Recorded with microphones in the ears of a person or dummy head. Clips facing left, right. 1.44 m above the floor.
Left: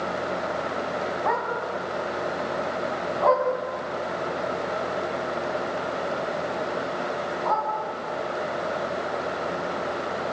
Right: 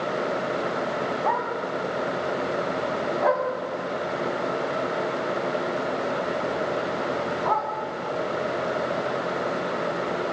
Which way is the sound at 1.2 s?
10° left (ahead or behind).